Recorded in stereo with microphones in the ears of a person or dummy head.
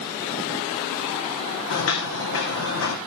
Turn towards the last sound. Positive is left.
turn(degrees=75)  # may be behind; listen again after turning